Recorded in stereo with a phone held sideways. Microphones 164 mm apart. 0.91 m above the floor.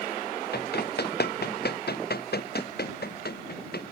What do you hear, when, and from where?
0.5 s running footsteps: 75° left (ahead or behind)